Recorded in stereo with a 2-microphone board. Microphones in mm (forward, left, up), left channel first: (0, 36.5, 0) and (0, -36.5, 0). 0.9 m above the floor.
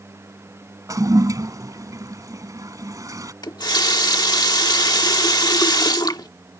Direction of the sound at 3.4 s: 65° left (ahead or behind).